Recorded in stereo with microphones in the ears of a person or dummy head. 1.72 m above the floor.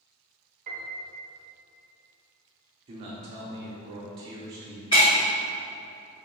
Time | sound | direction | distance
0.7 | a piano | 55° right (ahead or behind) | 0.7 m
2.9 | a man speaking | 30° right (ahead or behind) | 0.7 m
4.9 | breaking glass | 15° left (ahead or behind) | 1.5 m